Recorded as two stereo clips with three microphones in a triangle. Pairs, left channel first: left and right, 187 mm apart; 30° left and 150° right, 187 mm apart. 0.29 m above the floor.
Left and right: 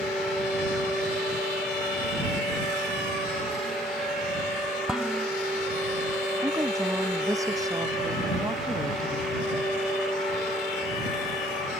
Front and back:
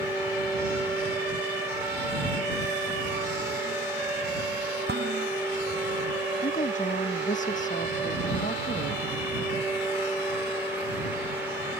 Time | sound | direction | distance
4.9 | dishes clattering | 175° right | ?
6.4 | a woman speaking | 20° right | ?